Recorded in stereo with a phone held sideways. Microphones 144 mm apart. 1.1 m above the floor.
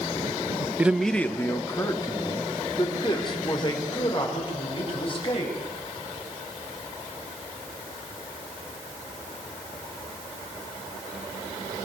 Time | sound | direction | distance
0.8 | a man speaking | 15° right (ahead or behind) | 0.9 m